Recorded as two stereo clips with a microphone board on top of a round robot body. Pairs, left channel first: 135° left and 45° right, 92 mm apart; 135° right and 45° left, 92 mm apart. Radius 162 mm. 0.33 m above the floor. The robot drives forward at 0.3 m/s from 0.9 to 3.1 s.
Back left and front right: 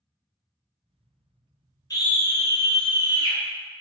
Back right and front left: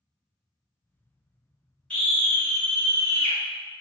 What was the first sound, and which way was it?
A scream, 155° left.